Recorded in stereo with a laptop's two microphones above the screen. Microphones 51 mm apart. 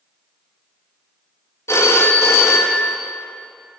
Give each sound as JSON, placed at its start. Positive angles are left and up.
{"t": 1.7, "sound": "a phone ringing", "side_deg": 65, "distance_m": 0.8}